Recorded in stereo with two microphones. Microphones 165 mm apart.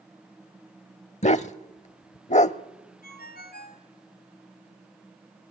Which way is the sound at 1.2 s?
45° left (ahead or behind).